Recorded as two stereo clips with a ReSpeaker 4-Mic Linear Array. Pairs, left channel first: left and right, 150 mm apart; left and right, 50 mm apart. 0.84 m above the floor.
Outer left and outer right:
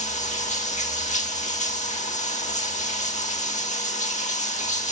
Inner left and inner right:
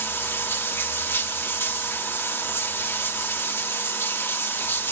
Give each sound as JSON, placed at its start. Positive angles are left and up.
{"t": 0.0, "sound": "running water", "side_deg": 55, "distance_m": 1.3}